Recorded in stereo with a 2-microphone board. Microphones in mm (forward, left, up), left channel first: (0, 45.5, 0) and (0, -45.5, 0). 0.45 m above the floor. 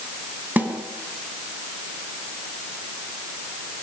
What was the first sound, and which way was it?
A snare drum, 20° right (ahead or behind).